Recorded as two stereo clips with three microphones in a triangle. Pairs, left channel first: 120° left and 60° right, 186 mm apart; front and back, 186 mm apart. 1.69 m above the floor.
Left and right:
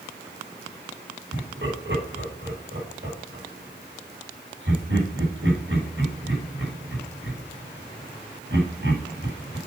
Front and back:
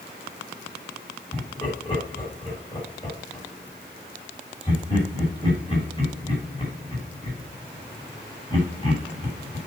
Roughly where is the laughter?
Ahead right.